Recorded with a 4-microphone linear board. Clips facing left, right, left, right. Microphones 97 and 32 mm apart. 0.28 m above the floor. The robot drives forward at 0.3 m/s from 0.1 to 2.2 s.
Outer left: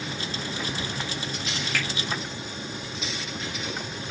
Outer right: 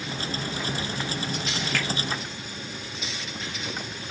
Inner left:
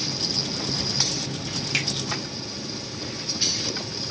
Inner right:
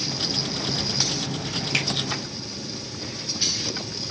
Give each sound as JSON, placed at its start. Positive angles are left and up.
{"t": 1.7, "sound": "a finger snap", "side_deg": 5, "distance_m": 1.3}